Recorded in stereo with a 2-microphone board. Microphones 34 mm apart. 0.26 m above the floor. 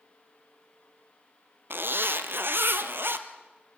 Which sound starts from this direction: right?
A zipper, at 1.7 s.